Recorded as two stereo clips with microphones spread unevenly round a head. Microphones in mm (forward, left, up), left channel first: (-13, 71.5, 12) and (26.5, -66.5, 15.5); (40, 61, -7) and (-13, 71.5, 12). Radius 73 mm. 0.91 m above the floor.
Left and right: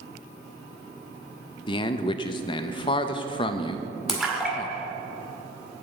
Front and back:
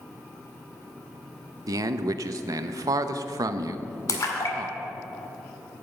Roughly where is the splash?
Ahead.